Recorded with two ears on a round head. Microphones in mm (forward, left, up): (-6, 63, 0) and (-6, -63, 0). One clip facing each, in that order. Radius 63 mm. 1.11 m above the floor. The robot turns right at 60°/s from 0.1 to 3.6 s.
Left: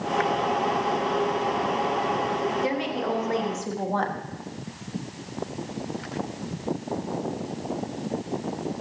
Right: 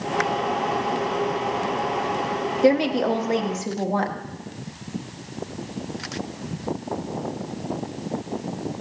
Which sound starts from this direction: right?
A woman speaking, at 2.6 s.